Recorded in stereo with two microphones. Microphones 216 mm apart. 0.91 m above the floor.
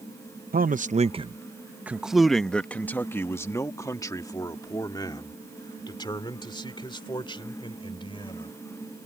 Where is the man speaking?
45° right (ahead or behind); by 8.5 s 25° left (ahead or behind).